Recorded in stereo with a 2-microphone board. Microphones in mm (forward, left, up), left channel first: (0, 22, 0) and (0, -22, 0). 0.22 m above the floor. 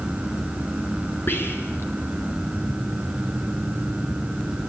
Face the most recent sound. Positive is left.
turn(degrees=60)  # may be behind; listen again after turning